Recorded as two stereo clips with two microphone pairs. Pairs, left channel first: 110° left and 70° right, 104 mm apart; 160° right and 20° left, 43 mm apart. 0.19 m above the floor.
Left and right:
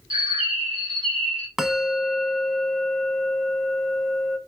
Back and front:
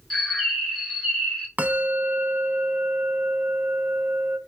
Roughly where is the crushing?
No crushing in this recording.